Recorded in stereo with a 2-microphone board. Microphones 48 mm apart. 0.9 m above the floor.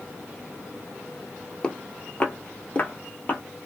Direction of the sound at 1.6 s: 25° left (ahead or behind).